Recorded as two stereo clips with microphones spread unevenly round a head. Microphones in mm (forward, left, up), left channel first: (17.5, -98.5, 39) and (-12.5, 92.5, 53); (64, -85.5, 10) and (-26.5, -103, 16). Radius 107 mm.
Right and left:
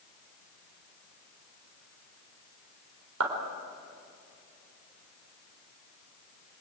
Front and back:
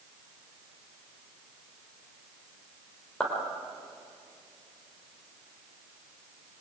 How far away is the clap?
About 3.5 m.